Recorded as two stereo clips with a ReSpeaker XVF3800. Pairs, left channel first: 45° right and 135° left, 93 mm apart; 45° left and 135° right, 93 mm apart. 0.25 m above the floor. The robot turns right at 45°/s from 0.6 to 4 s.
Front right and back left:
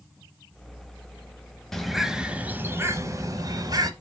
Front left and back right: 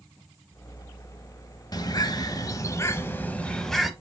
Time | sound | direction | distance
1.7 | a bird | 40° left | 0.7 m